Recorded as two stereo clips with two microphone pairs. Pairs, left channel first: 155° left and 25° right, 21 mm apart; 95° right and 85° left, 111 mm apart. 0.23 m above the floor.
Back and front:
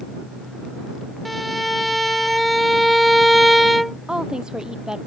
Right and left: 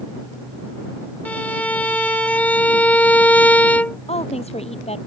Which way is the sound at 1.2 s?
135° right.